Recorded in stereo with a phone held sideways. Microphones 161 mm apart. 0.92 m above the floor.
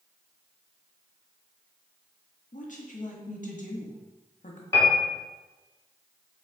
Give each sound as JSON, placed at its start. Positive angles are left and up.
{"t": 2.5, "sound": "a woman speaking", "side_deg": 60, "distance_m": 1.4}
{"t": 4.7, "sound": "a piano", "side_deg": 20, "distance_m": 2.0}